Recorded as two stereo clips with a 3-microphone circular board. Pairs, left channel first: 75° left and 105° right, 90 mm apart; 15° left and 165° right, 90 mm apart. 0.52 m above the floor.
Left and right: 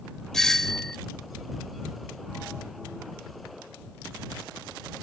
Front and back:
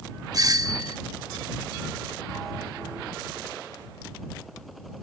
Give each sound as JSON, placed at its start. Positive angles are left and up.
{"t": 0.3, "sound": "a doorbell", "azimuth_deg": 160}